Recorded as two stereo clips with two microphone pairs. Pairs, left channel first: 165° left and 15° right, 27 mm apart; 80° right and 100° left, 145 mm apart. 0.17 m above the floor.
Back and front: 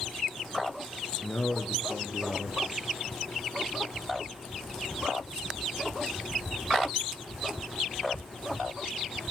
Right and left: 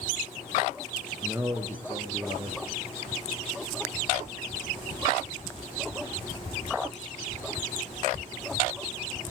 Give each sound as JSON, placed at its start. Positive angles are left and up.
{"t": 1.2, "sound": "a man speaking", "azimuth_deg": 170, "distance_m": 2.5}